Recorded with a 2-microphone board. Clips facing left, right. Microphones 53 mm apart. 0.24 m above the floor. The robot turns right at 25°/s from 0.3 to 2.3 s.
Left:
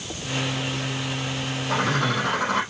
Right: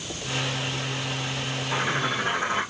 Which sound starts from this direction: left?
A bird, at 1.7 s.